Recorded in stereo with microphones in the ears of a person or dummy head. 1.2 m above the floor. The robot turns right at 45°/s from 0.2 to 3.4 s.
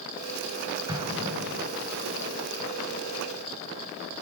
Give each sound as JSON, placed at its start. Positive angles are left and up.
{"t": 0.9, "sound": "an explosion", "side_deg": -20, "distance_m": 4.5}